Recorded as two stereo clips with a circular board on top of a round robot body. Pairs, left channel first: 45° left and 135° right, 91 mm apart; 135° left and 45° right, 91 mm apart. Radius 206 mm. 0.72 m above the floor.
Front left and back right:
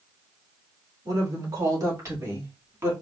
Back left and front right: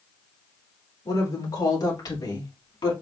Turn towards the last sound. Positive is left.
turn(degrees=165)